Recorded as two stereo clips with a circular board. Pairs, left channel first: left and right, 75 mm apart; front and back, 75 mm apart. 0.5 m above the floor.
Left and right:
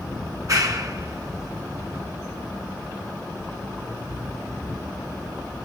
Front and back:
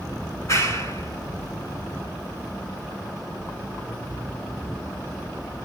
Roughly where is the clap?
Ahead right.